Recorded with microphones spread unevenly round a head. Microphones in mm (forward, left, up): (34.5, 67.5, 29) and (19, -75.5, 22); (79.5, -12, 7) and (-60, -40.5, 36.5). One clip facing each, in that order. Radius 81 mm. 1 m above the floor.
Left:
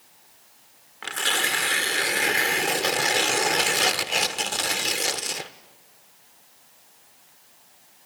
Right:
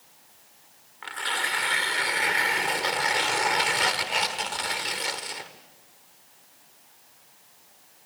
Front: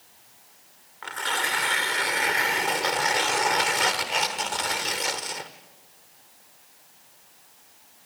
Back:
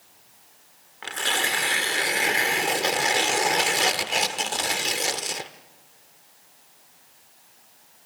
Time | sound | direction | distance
1.0 | tearing paper | 130° left | 1.2 m